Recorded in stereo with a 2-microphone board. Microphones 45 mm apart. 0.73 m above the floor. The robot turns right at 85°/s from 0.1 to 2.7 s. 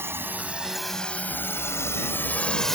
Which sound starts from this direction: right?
A drone, at 0.0 s.